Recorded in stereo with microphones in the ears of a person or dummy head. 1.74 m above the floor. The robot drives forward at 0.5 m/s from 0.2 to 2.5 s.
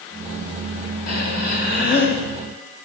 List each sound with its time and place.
1.1 s breathing: 40° left (ahead or behind), 2 m